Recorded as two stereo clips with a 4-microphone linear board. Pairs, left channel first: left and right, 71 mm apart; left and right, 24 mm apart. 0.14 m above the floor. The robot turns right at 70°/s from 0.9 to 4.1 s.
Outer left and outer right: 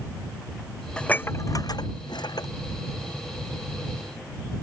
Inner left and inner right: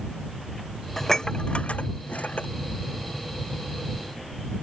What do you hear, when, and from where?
1.0 s dishes clattering: 10° left (ahead or behind); by 2.5 s 60° left (ahead or behind)